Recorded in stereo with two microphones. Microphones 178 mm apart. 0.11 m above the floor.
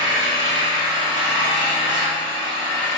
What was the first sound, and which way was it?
An engine running, 25° right (ahead or behind).